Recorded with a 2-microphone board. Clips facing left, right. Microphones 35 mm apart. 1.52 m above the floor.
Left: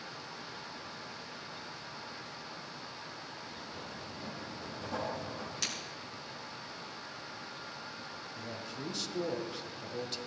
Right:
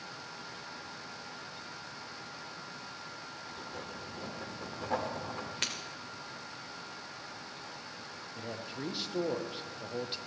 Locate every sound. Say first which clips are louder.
3.5 s writing: right 2 dB; 60° right (ahead or behind), 2.5 m
5.6 s breaking glass: right 2 dB; 45° right (ahead or behind), 2 m
8.3 s a man speaking: right 3 dB; 20° right (ahead or behind), 1.1 m